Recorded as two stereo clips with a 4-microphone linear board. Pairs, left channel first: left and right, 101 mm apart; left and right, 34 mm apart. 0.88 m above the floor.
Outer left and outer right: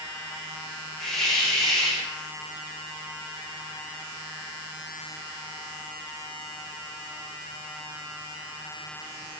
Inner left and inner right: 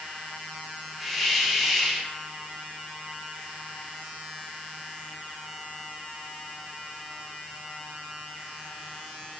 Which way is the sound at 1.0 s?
5° left (ahead or behind).